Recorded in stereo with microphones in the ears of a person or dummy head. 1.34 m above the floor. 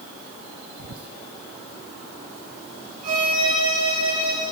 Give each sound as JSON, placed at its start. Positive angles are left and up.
{"t": 0.8, "sound": "whispering", "side_deg": -80, "distance_m": 0.8}
{"t": 3.0, "sound": "a violin", "side_deg": -50, "distance_m": 5.5}